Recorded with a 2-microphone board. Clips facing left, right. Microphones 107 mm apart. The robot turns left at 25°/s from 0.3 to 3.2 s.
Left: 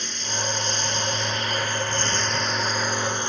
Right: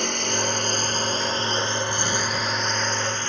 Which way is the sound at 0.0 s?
120° right.